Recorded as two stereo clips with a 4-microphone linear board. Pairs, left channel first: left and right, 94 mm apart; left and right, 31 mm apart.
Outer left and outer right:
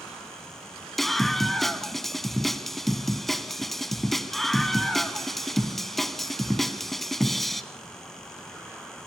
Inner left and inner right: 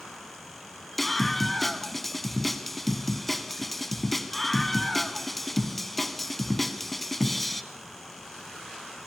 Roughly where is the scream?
Centre.